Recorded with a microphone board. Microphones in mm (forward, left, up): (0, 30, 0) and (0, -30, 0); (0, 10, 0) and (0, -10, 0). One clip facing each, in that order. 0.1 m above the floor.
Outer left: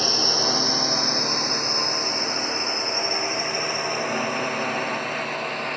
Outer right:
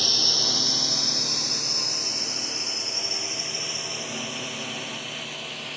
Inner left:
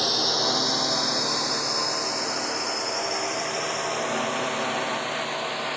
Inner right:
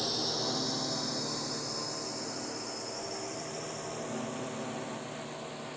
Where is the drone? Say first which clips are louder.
Outer left 6 dB, inner left 9 dB; 40° left (ahead or behind); by 5.8 s 55° left (ahead or behind).